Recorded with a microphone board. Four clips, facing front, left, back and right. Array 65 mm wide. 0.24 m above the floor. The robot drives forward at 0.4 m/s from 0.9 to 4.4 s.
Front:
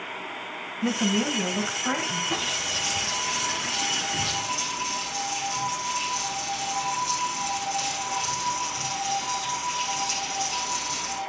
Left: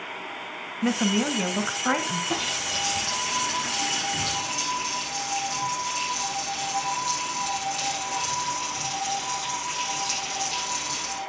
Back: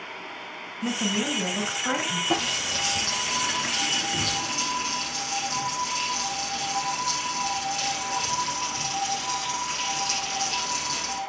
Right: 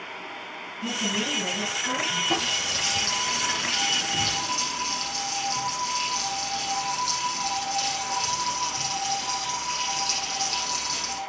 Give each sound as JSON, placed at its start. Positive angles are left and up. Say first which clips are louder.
{"t": 0.8, "sound": "a woman speaking", "louder": "left 6 dB, front 2 dB", "azimuth_deg": 80, "distance_m": 2.0}
{"t": 2.3, "sound": "a running tap", "louder": "right 1 dB, back 3 dB", "azimuth_deg": -170, "distance_m": 6.0}